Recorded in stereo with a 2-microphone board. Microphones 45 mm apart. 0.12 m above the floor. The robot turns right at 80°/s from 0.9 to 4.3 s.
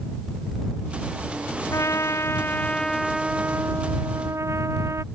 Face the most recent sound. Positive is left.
turn(degrees=-80)